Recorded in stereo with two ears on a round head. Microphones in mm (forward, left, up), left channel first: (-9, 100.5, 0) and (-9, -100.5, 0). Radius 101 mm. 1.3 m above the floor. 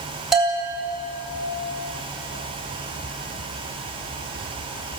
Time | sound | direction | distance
0.3 | a bell | centre (ahead or behind) | 8 m